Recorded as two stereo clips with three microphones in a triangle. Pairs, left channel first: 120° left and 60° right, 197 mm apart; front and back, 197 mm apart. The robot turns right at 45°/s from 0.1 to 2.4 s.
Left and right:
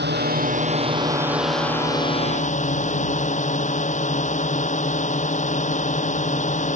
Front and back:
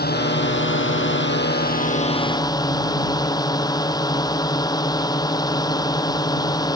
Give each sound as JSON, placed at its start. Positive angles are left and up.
{"t": 0.0, "sound": "a drone", "azimuth_deg": -35}